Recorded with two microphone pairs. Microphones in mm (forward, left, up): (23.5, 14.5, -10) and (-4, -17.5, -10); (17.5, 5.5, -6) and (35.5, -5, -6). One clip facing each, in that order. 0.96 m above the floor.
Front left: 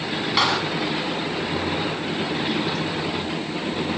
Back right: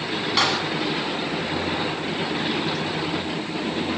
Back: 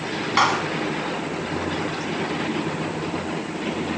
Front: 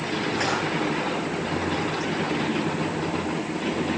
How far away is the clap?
About 8.5 m.